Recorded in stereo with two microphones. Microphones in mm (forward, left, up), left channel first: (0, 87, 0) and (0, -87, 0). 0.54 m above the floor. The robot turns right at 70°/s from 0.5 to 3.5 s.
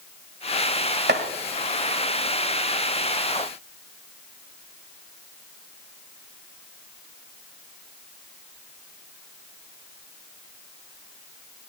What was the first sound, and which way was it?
Chopping, 80° right.